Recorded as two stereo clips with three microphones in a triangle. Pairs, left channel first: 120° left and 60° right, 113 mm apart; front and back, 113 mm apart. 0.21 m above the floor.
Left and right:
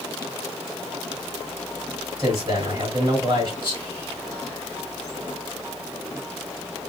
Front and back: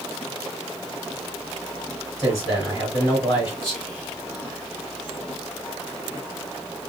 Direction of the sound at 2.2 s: 30° right.